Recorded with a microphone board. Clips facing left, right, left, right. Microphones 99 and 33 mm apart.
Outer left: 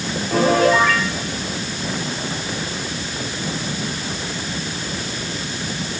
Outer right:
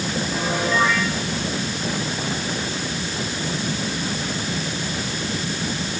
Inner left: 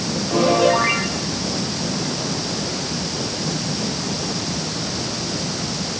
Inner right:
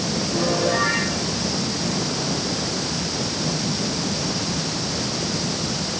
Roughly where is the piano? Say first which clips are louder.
Outer left 10 dB, inner left 7 dB; left.